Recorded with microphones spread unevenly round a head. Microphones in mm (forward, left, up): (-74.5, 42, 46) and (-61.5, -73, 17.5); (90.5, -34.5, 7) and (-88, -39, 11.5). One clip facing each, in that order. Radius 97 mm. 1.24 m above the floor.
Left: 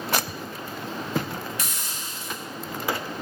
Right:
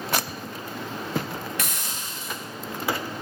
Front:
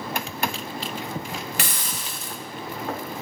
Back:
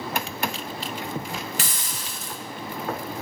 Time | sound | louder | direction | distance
1.6 | a hiss | right 2 dB, front 2 dB | 35° right | 1.6 m